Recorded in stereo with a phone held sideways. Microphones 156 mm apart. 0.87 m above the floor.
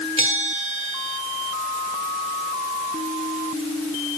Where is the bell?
45° right (ahead or behind), 3.5 m.